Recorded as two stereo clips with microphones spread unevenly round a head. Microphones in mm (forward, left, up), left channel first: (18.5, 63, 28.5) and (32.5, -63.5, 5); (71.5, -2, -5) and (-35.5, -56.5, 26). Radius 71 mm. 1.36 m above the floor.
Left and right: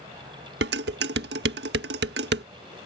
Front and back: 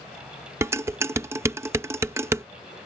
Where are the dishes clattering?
90° right.